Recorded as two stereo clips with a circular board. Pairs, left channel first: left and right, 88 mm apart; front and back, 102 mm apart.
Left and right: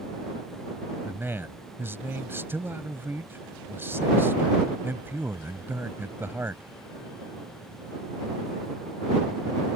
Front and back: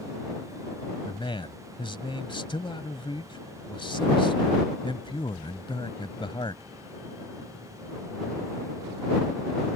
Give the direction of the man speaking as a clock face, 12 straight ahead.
1 o'clock.